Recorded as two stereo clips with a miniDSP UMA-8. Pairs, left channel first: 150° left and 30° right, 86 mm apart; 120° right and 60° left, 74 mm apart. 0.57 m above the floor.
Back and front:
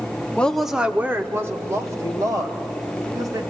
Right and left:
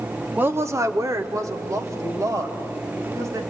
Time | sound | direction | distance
0.4 | a woman speaking | 90° left | 0.8 m